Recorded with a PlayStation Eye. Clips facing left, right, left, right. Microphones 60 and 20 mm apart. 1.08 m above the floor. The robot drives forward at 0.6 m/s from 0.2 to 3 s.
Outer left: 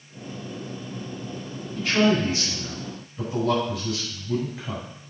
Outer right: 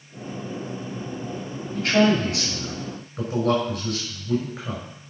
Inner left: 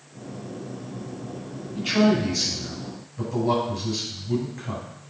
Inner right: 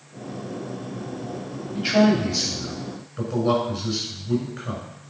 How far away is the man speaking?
About 6 m.